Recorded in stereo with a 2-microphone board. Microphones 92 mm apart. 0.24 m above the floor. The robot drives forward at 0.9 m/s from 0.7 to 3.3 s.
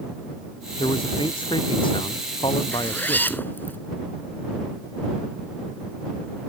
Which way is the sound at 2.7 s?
20° left (ahead or behind).